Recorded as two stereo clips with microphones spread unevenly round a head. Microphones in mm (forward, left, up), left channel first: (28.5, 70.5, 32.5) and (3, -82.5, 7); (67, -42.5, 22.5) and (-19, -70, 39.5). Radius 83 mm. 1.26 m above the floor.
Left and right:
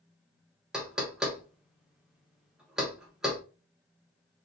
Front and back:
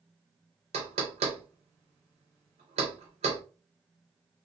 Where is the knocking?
170° left, 0.6 m.